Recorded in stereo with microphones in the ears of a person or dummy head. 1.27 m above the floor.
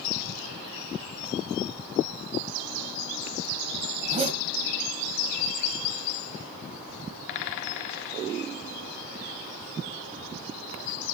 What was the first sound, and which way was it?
A zipper, 35° right (ahead or behind).